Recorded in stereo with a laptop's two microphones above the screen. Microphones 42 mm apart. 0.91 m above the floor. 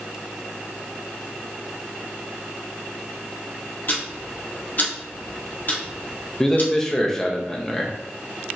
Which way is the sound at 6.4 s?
10° left (ahead or behind).